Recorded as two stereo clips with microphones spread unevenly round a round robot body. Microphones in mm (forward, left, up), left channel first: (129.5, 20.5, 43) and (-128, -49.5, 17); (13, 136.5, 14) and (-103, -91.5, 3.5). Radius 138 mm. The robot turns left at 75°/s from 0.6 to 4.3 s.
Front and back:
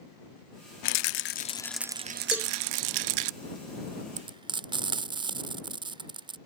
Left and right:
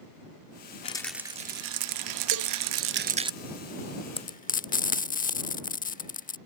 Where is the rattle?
5° right; by 3.3 s 170° left.